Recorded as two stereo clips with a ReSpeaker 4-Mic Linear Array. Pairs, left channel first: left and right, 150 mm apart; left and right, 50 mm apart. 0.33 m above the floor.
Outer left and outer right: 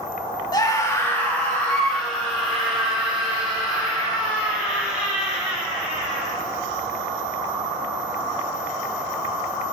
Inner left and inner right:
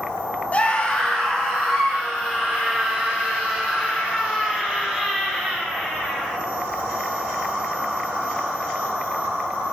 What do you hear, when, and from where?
0.5 s a scream: 30° left (ahead or behind), 1.1 m; by 6.3 s 5° right (ahead or behind), 8 m